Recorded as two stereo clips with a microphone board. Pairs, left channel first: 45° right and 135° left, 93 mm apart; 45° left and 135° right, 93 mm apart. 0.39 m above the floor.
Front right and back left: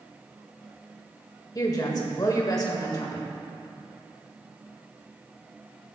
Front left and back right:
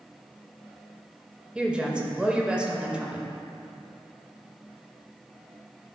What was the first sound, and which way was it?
A woman speaking, 60° right.